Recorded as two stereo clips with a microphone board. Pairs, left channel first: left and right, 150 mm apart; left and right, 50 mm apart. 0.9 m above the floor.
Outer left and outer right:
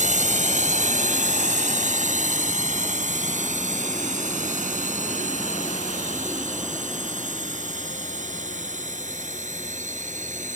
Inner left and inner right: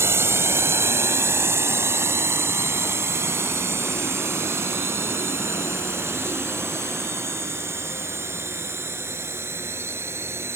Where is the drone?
55° right (ahead or behind).